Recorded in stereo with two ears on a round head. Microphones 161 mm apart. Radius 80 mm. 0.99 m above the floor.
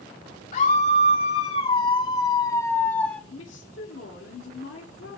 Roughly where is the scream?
Left.